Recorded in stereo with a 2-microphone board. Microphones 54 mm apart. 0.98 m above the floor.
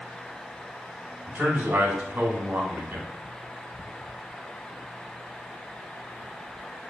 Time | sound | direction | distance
1.3 | a man speaking | 40° right (ahead or behind) | 1.0 m